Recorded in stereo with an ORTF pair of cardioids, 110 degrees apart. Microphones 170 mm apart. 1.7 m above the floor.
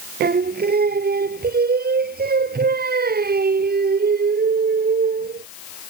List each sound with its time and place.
0.2 s singing: 70° right